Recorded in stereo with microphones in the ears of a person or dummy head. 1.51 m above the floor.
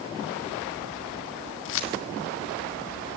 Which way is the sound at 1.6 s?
65° left (ahead or behind).